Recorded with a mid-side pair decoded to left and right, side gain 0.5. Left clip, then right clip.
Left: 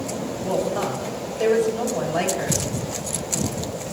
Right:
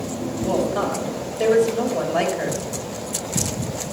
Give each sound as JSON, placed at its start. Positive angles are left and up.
{"t": 0.4, "sound": "a woman speaking", "azimuth_deg": -25, "distance_m": 3.5}